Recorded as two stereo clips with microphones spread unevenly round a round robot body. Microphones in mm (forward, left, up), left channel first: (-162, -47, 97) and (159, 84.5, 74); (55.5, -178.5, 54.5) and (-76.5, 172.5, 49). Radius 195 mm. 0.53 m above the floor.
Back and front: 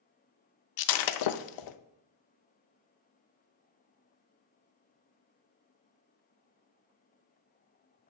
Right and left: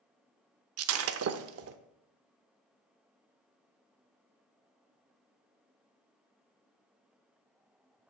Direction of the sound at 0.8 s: 165° left.